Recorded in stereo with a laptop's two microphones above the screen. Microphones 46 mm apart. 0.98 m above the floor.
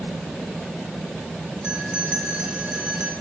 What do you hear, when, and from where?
1.6 s a bell: 20° right (ahead or behind), 1.6 m